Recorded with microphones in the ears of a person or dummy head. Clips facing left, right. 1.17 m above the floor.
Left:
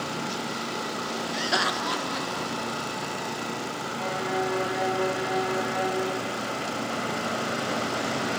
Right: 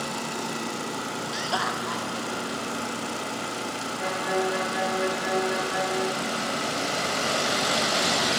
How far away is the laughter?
About 0.6 m.